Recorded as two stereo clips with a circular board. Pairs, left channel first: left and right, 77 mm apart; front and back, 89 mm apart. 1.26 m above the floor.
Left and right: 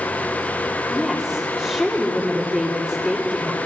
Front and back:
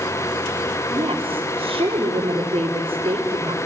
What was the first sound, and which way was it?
A woman speaking, 170° left.